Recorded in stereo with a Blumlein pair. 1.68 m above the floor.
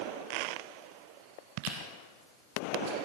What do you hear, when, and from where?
1.6 s chewing: 45° right, 6 m